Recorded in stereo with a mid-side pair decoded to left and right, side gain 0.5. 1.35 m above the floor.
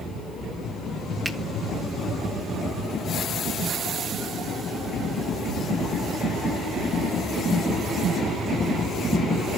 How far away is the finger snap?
About 2 m.